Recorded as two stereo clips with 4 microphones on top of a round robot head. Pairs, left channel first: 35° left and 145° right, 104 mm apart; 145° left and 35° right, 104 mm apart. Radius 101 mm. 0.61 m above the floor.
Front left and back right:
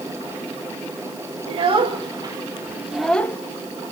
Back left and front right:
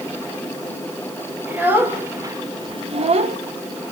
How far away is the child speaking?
About 2 m.